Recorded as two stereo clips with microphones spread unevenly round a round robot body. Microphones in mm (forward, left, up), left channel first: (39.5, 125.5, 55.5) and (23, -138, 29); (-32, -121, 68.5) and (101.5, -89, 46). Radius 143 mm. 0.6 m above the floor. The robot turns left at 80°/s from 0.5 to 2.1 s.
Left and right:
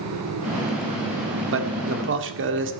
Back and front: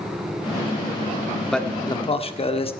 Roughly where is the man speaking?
Right.